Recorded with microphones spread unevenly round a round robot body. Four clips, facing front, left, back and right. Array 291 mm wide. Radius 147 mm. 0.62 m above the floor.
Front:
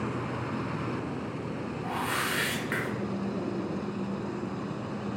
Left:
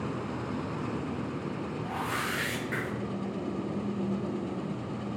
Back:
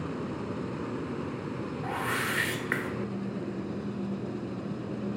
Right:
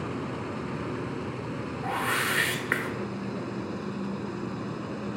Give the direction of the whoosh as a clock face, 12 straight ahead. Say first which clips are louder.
Right 6 dB, front 1 dB; 3 o'clock.